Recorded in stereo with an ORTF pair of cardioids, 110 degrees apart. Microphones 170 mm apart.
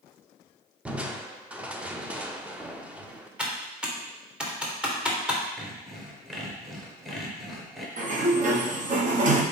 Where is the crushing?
5° right, 0.7 m.